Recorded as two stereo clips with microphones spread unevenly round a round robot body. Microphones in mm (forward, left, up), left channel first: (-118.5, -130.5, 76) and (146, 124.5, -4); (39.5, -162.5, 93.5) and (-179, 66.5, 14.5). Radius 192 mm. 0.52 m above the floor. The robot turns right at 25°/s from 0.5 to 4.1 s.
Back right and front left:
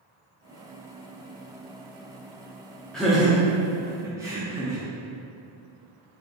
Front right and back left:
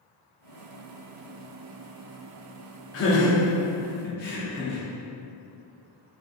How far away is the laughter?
About 0.7 m.